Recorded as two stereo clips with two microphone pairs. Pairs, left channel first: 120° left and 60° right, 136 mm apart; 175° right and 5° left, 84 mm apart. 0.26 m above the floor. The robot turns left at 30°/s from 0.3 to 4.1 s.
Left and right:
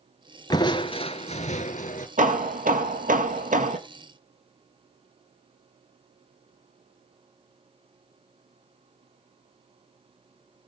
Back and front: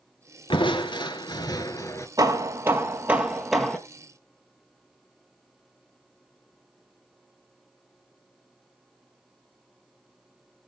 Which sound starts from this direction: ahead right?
Hammering, at 2.2 s.